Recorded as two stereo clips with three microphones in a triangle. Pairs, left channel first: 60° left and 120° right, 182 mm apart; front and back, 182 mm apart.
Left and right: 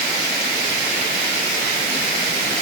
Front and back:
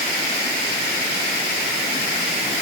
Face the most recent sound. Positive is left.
No sound to turn to.